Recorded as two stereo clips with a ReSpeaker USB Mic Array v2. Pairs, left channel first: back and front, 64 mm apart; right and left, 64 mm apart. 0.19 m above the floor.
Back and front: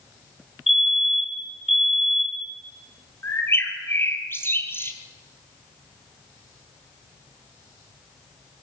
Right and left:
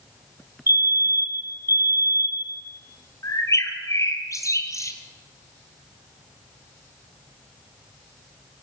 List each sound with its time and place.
0.7 s a fire alarm: 85° left, 2.5 m
3.2 s a bird: 130° right, 1.8 m